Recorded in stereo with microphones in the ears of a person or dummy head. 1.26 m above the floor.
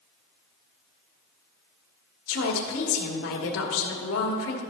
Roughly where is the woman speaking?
Left.